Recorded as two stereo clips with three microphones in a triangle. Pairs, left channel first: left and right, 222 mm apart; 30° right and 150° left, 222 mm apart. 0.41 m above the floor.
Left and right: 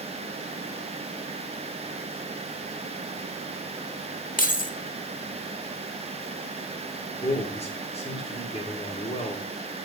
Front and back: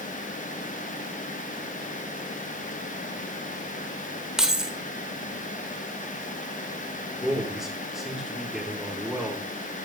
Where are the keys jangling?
65° left, 0.7 m.